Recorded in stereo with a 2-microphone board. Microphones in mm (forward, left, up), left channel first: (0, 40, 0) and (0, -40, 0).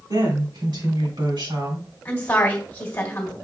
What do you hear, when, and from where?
0.1 s a woman speaking: 65° right (ahead or behind), 2 m; by 1.9 s 75° right (ahead or behind), 2.5 m
2.0 s a woman speaking: 25° left (ahead or behind), 1.6 m